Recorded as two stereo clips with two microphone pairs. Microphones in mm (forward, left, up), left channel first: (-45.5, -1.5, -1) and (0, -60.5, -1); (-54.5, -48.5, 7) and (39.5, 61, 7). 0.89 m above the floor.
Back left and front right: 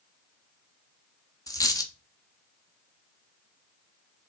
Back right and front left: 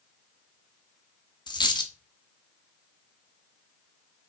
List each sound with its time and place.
1.5 s a dropped coin: 170° left, 0.6 m